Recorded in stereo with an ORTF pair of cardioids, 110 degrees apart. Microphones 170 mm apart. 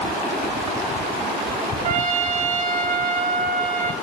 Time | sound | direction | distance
1.8 | a trumpet | 45° right | 1.5 m